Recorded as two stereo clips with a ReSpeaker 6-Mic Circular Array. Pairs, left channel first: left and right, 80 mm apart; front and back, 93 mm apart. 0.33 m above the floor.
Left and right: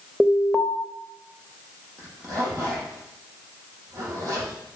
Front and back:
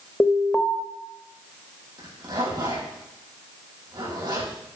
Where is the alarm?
20° left, 1.1 m.